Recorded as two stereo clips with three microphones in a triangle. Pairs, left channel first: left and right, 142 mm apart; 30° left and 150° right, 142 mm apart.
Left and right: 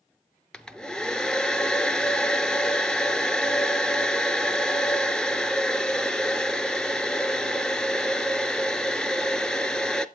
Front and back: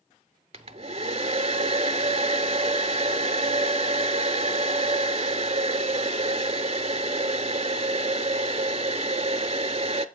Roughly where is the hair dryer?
Behind.